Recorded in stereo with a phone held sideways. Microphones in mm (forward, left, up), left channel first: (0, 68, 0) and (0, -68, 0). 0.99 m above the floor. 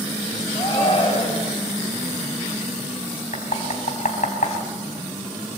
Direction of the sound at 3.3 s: 70° left (ahead or behind).